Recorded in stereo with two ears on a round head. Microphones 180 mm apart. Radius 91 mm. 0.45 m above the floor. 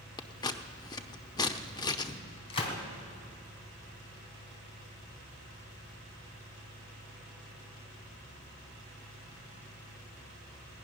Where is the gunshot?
30° left (ahead or behind), 2.5 m.